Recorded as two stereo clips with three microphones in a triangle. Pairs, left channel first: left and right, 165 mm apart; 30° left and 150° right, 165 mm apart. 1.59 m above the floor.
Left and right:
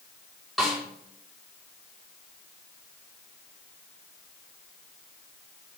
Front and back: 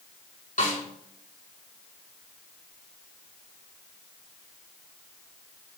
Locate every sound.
0.6 s a snare drum: straight ahead, 3 m